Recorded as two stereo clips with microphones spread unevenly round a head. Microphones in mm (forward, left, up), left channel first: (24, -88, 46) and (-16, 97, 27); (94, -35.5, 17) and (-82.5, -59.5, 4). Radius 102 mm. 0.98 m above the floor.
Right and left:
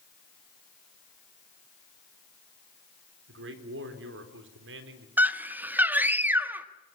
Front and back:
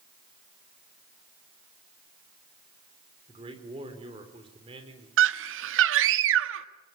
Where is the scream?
175° right, 1.4 m.